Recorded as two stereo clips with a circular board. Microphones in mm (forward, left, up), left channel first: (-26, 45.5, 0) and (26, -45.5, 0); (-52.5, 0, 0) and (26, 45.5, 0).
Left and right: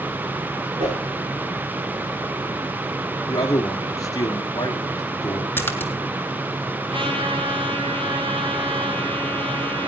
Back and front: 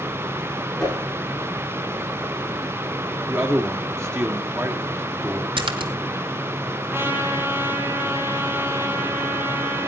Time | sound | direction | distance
0.8 | a whoosh | 65° right | 9 m
3.3 | a man speaking | 80° left | 1.6 m
5.6 | a splash | 50° left | 1.3 m
6.9 | a trumpet | 35° right | 3 m